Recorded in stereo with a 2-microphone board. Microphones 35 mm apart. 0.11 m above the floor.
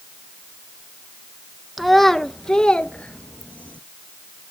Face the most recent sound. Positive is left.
turn(degrees=40)  # may be behind; listen again after turning